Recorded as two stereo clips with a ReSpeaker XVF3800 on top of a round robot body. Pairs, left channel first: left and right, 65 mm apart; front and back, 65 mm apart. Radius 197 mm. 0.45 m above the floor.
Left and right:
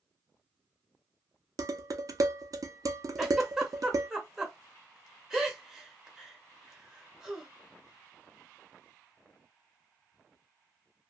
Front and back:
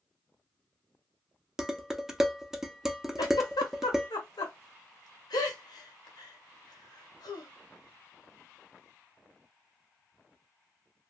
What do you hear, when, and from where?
1.6 s dishes clattering: 100° right, 0.8 m
3.2 s a giggle: 5° right, 0.8 m